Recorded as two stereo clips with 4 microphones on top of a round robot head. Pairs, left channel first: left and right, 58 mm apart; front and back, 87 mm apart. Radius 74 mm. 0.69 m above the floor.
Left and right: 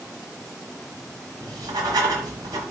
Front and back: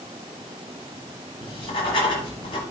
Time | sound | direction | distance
1.4 | writing | 45° right | 1.4 m